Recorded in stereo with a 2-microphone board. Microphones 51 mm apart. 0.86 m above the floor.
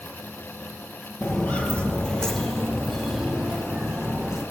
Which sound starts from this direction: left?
Footsteps, at 1.2 s.